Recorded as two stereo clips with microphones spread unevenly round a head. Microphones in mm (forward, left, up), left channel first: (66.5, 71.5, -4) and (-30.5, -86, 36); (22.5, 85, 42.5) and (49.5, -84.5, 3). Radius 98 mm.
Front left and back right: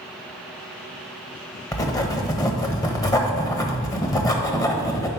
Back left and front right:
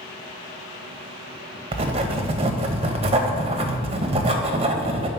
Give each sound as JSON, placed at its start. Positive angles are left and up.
{"t": 1.7, "sound": "writing", "azimuth_deg": -20, "distance_m": 1.0}